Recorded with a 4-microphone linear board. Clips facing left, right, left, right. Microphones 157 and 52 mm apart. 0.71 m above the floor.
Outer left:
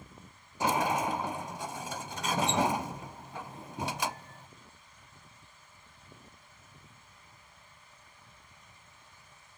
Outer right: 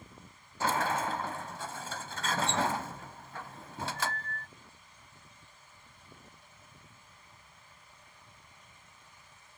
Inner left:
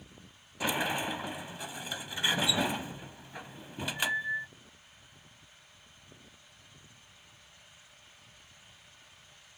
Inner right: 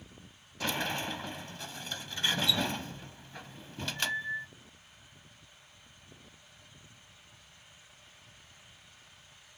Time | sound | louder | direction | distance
0.6 | a sliding door | outer left 2 dB, inner left 2 dB | 15° left (ahead or behind) | ?